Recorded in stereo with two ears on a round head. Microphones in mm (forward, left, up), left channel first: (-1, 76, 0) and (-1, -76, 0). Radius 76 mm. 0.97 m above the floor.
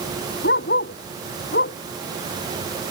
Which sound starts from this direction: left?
A dog barking, at 0.4 s.